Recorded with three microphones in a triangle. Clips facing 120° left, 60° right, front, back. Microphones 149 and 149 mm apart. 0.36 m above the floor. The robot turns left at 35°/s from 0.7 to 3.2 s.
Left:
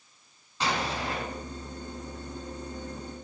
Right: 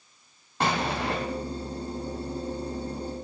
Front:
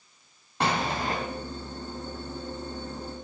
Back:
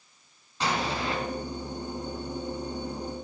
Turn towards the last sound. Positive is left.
turn(degrees=-115)